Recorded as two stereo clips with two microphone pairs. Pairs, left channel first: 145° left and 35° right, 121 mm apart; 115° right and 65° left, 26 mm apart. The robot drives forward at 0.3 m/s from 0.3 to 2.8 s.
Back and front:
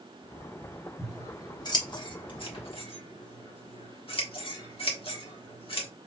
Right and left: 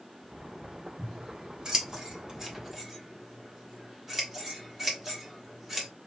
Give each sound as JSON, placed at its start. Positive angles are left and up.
{"t": 1.0, "sound": "scissors", "azimuth_deg": 100, "distance_m": 1.1}